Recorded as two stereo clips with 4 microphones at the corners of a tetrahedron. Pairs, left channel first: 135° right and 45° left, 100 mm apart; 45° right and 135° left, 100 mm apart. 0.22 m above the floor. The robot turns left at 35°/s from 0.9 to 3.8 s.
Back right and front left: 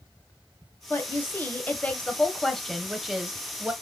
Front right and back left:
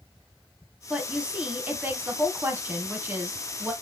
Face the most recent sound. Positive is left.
turn(degrees=100)